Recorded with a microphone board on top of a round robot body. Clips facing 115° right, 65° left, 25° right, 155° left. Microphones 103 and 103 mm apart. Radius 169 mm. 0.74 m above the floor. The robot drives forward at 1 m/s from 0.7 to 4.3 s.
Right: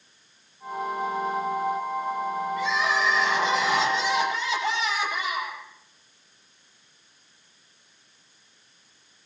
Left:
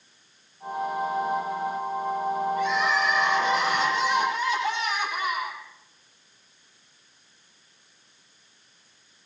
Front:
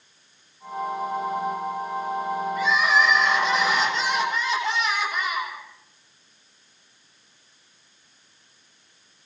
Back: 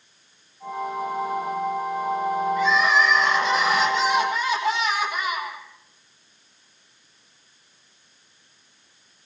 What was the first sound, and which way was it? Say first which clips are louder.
Crying: left 1 dB, even; 105° right.